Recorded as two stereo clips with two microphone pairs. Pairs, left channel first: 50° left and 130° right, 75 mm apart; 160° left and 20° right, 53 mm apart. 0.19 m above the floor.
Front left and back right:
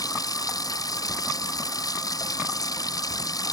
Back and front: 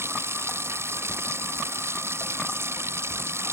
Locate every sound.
0.0 s running water: 15° left